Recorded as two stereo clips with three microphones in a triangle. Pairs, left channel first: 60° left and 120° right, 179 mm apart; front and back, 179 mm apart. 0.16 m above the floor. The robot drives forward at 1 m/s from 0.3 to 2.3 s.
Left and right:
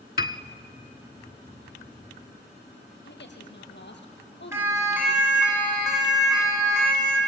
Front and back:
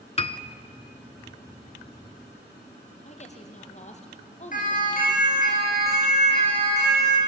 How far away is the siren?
About 9 m.